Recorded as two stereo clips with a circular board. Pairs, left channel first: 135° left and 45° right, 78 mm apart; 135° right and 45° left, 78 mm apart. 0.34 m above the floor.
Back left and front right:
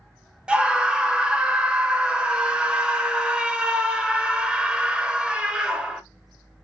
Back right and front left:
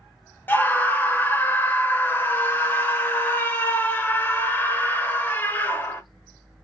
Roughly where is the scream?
Right.